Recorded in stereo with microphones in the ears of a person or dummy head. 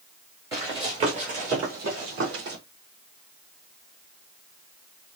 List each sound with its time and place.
0.5 s running footsteps: 15° right (ahead or behind), 1.2 m; by 2.6 s 60° right (ahead or behind), 2 m